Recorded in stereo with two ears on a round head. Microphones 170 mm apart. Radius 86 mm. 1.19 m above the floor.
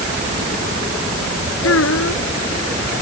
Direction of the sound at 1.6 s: 85° left.